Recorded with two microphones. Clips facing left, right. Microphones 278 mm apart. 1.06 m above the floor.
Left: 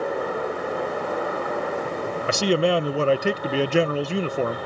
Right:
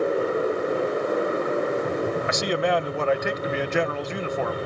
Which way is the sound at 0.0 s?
30° right (ahead or behind).